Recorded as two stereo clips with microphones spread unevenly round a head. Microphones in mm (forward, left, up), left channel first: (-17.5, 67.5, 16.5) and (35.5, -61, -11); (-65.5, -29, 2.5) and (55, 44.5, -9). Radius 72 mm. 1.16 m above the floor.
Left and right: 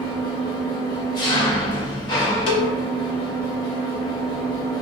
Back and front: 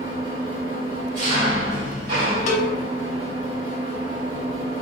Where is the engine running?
65° left, 1.3 m.